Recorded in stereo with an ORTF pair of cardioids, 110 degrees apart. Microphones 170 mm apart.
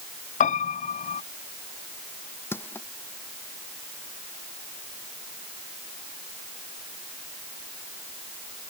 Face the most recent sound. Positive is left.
turn(degrees=15)